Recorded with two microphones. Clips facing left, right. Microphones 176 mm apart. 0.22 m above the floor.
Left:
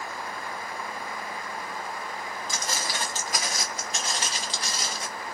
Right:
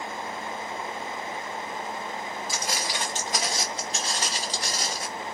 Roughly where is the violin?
I don't hear a violin.